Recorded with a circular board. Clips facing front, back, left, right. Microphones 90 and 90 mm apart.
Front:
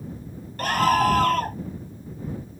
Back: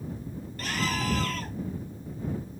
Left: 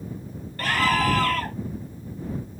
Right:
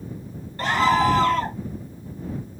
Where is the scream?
25° right.